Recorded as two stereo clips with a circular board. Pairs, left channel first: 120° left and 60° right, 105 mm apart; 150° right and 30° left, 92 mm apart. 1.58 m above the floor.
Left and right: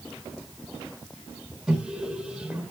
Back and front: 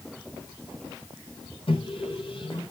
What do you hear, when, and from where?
1.7 s a microwave: 145° right, 4.5 m